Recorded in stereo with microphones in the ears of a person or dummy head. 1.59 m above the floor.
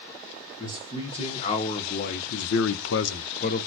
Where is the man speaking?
30° left (ahead or behind), 1.8 m; by 3.7 s 40° left (ahead or behind), 0.9 m.